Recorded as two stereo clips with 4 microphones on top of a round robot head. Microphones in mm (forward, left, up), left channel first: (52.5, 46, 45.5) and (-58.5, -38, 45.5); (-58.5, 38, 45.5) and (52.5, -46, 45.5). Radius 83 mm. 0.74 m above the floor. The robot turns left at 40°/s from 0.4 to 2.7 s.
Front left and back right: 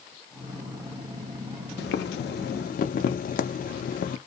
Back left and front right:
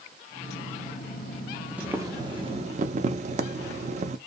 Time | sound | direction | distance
1.8 | boiling | 45° left | 0.5 m